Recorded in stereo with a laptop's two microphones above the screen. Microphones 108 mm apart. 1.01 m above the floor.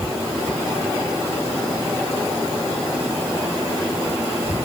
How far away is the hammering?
I don't hear hammering.